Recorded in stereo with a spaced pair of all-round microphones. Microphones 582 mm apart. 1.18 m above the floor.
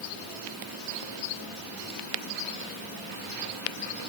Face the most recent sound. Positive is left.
No sound to turn to.